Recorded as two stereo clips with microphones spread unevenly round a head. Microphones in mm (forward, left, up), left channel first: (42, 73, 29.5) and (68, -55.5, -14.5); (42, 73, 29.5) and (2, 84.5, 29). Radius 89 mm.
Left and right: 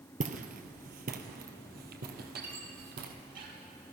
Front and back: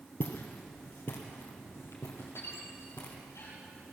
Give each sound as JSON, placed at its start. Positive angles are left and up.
{"t": 0.2, "sound": "footsteps", "azimuth_deg": -55, "distance_m": 1.9}
{"t": 2.4, "sound": "a squeak", "azimuth_deg": -60, "distance_m": 7.5}